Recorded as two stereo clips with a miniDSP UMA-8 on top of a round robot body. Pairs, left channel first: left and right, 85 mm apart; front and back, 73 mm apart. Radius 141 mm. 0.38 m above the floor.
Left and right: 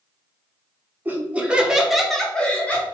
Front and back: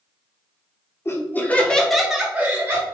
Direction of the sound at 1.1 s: 30° right.